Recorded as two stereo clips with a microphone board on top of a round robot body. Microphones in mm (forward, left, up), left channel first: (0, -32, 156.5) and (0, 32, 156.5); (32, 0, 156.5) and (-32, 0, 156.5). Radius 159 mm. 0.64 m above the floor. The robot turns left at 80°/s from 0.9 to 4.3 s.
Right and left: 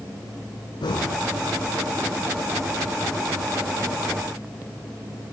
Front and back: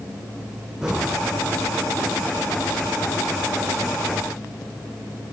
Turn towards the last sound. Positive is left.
turn(degrees=-10)